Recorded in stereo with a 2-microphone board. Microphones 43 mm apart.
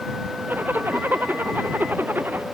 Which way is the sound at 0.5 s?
50° right (ahead or behind).